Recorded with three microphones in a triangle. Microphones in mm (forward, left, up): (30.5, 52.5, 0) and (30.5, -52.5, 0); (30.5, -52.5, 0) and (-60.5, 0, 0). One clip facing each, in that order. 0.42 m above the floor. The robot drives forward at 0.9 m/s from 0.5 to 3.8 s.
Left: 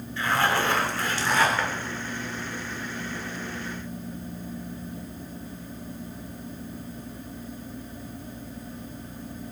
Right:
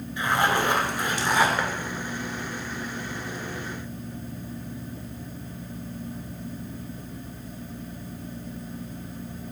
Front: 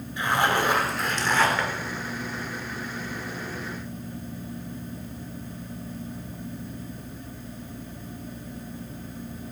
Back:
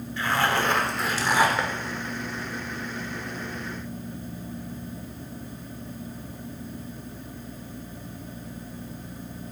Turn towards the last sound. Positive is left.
turn(degrees=-170)